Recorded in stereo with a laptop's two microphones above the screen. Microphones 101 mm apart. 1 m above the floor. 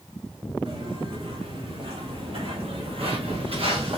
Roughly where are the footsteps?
Right.